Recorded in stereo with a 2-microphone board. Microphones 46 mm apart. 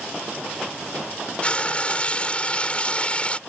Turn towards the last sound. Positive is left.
turn(degrees=25)  # may be behind; listen again after turning